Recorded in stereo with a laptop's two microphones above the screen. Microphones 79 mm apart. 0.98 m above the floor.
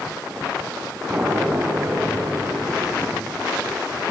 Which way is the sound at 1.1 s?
15° right (ahead or behind).